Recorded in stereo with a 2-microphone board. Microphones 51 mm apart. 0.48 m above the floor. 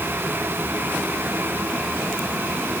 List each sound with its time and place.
Only background noise.